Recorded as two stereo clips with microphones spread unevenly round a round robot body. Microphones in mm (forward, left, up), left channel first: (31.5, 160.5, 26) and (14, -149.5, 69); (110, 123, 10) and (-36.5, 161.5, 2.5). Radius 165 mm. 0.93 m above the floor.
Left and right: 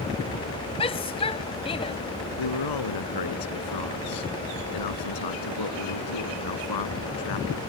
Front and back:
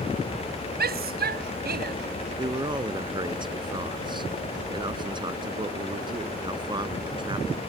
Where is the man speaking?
105° left.